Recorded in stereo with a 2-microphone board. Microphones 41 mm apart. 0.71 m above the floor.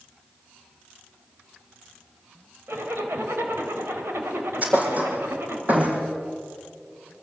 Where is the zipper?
70° right (ahead or behind), 3 m.